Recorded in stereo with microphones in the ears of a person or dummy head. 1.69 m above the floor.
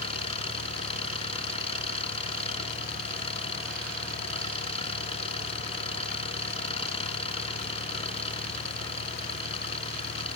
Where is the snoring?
I don't hear snoring.